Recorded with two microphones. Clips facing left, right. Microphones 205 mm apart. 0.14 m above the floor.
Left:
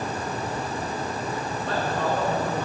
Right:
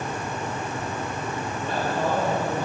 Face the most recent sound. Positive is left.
turn(degrees=-10)  # may be behind; listen again after turning